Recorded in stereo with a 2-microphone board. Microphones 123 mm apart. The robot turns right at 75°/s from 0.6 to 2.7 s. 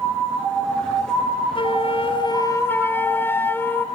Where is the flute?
70° left, 1.6 m; by 3.9 s 155° left, 1.6 m.